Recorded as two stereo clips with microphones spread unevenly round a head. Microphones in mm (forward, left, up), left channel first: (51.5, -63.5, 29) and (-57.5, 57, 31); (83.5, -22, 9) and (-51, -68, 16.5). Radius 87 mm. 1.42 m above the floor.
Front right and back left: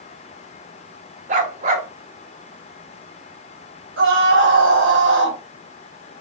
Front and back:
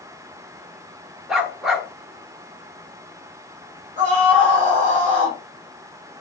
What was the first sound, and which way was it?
A dog barking, 120° left.